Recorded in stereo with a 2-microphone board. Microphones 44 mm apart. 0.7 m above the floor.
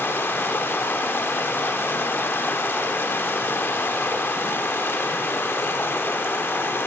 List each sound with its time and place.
0.0 s running water: 60° left (ahead or behind), 0.8 m